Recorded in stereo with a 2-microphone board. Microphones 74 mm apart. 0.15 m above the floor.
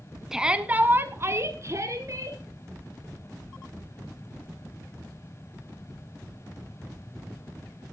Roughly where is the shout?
Centre.